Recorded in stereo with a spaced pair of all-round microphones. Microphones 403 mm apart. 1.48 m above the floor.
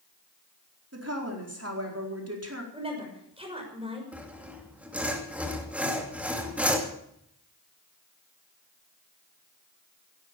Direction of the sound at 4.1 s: 5° right (ahead or behind).